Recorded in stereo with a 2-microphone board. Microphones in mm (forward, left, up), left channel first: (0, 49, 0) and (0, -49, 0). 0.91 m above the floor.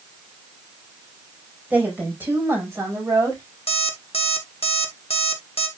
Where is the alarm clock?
75° left (ahead or behind), 1.5 m.